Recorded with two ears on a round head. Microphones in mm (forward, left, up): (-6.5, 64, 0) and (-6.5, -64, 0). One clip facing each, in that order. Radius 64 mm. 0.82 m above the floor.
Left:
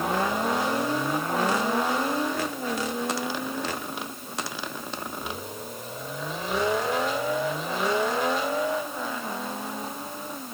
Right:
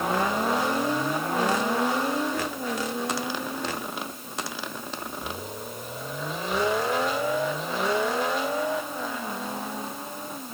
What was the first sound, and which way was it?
Only background noise.